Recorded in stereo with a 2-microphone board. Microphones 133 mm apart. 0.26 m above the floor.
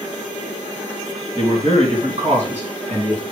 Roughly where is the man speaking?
Right.